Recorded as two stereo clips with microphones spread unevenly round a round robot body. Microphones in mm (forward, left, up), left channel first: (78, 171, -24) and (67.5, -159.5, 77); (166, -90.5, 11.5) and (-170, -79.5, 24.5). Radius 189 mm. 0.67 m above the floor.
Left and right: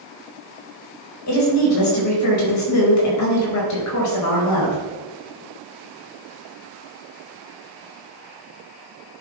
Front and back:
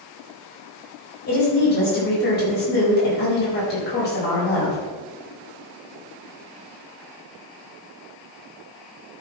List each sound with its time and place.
1.3 s a woman speaking: 60° left, 4 m